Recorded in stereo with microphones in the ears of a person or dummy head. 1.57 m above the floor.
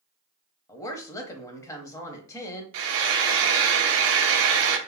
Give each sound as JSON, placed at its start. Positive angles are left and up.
{"t": 0.7, "sound": "a woman speaking", "side_deg": 15, "distance_m": 0.6}
{"t": 2.7, "sound": "frying", "side_deg": -75, "distance_m": 0.6}